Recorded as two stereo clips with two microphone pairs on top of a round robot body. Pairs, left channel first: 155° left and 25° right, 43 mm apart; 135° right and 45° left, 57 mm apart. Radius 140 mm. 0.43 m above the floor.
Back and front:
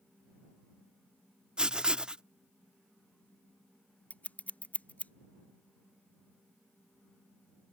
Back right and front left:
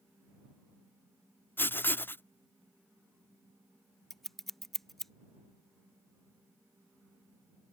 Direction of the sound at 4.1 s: 135° left.